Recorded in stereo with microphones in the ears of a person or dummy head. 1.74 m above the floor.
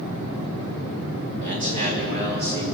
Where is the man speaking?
35° right (ahead or behind), 5 m; by 2.6 s 40° right (ahead or behind), 5 m.